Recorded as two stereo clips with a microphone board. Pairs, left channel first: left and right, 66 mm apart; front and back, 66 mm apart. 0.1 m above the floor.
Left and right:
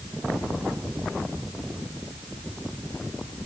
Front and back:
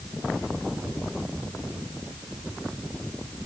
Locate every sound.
Only background noise.